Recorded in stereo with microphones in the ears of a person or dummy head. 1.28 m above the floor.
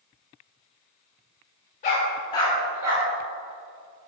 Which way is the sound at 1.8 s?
35° left (ahead or behind).